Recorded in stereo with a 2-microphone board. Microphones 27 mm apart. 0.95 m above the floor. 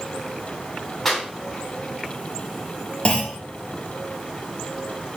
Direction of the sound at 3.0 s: 40° left (ahead or behind).